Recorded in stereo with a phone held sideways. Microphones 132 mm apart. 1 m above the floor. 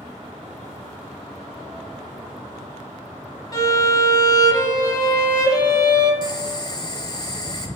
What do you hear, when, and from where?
3.5 s a violin: 25° left (ahead or behind), 0.6 m
6.2 s boiling: 30° left (ahead or behind), 0.6 m